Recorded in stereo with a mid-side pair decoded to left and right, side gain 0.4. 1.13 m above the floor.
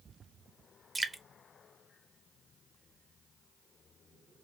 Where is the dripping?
20° right, 0.7 m.